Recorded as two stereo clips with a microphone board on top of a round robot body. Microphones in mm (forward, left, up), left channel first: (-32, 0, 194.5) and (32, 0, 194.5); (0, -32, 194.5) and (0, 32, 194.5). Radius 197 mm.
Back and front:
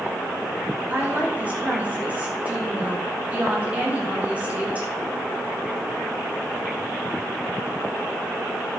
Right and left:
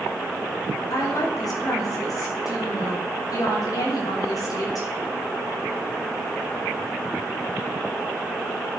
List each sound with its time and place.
0.9 s a woman speaking: 70° right, 3.5 m